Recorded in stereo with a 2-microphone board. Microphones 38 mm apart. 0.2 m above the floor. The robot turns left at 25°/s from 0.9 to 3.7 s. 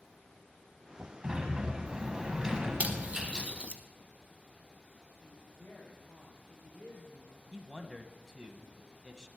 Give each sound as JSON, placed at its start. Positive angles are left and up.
{"t": 1.2, "sound": "a sliding door", "side_deg": -25, "distance_m": 1.5}
{"t": 2.8, "sound": "cutlery clinking", "side_deg": -40, "distance_m": 0.9}
{"t": 5.2, "sound": "a woman speaking", "side_deg": 65, "distance_m": 4.0}
{"t": 7.5, "sound": "a man speaking", "side_deg": -15, "distance_m": 1.0}